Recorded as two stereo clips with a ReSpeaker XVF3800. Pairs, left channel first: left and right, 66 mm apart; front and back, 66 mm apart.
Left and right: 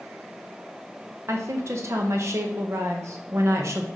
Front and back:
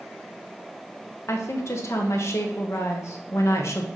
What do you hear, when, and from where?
1.3 s a woman speaking: 45° right, 1.1 m